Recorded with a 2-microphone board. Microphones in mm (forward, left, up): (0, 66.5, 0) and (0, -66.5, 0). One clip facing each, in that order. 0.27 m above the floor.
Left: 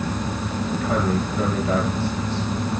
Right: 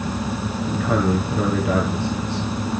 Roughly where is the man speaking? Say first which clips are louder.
Right 2 dB; right.